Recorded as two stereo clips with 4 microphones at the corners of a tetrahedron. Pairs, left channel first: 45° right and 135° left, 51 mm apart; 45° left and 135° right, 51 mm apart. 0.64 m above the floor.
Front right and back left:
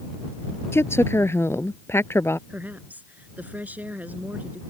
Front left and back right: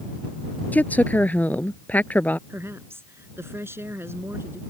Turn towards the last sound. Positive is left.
turn(degrees=-165)